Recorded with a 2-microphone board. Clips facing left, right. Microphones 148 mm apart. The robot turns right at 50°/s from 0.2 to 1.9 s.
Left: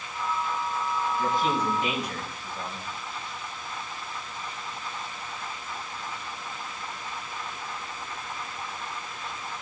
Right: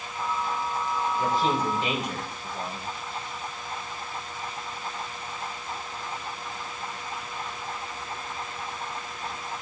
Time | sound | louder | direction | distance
1.2 | a man speaking | right 1 dB | 60° right | 3 m